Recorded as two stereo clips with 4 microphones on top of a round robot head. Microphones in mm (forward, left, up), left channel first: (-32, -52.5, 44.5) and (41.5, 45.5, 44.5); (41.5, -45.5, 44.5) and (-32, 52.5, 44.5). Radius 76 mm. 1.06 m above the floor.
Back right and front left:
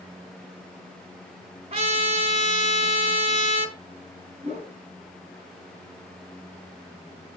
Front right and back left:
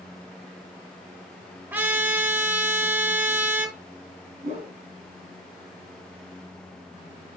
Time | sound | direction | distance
1.7 | a trumpet | 60° left | 0.9 m
4.4 | a whoosh | 90° left | 2.5 m